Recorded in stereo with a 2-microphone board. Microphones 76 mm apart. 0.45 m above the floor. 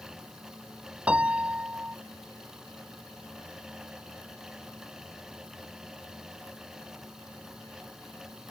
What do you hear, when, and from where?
1.1 s a piano: 15° right (ahead or behind)